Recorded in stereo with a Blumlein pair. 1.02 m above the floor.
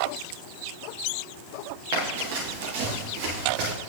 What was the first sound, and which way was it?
Running footsteps, 50° right.